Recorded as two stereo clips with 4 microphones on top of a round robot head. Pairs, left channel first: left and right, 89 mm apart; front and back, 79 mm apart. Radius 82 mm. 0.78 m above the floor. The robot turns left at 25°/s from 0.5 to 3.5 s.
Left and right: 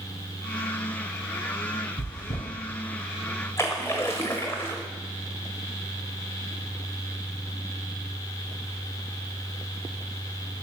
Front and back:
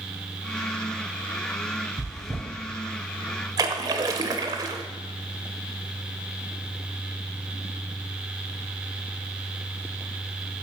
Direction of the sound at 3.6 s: 160° left.